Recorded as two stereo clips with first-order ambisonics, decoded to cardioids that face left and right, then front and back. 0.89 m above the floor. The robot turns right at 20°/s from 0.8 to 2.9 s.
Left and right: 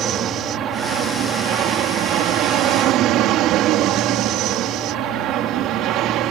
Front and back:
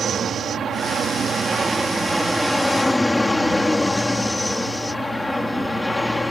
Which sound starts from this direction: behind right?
An aircraft, at 0.0 s.